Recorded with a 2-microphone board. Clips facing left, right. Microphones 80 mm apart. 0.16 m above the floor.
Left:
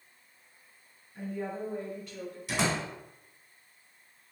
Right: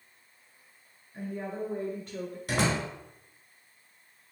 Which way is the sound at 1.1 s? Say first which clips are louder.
Even; 50° right (ahead or behind).